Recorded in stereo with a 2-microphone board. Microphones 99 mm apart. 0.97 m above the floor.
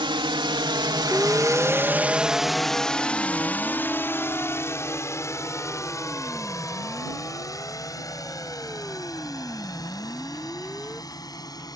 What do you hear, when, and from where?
0.0 s a drone: 55° right (ahead or behind); by 11.8 s 40° left (ahead or behind)
1.1 s a siren: 10° left (ahead or behind); by 11.0 s centre (ahead or behind)